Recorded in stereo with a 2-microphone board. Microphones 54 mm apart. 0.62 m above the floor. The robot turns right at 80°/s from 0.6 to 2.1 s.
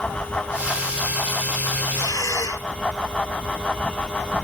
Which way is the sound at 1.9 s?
70° left (ahead or behind).